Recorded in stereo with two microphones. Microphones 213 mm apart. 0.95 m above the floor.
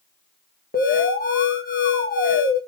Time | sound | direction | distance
0.7 | an alarm | 40° left (ahead or behind) | 1.5 m